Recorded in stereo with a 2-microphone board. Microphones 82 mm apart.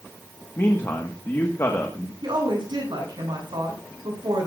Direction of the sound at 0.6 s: 35° left (ahead or behind).